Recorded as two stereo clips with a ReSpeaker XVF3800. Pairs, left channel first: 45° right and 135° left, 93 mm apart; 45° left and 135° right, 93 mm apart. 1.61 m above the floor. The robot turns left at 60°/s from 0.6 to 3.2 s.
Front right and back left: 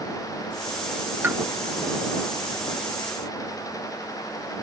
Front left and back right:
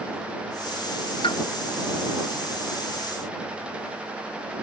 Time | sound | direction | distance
1.2 | a pop | 70° left | ?